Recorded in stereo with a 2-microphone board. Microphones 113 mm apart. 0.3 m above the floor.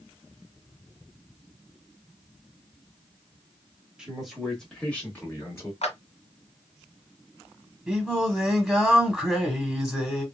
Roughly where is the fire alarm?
No fire alarm in this recording.